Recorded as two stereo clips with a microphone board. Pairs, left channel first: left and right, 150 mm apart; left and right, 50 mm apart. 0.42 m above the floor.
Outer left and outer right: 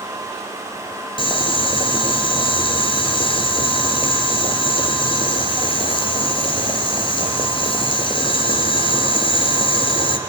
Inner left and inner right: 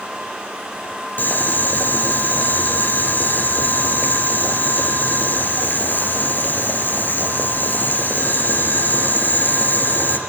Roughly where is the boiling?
Left.